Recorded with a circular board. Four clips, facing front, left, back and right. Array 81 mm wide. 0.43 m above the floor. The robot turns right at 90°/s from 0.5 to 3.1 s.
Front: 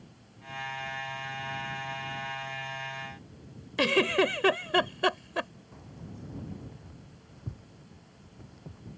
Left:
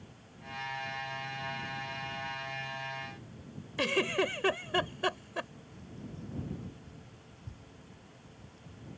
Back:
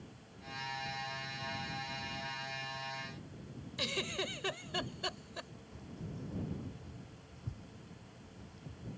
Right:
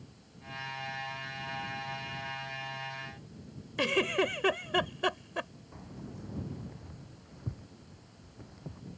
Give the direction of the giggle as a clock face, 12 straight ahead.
12 o'clock.